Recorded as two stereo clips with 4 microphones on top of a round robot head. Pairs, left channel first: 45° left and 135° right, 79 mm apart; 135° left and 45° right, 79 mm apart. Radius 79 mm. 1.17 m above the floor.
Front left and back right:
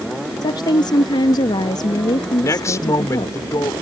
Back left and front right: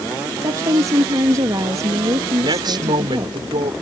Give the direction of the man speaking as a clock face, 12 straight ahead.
12 o'clock.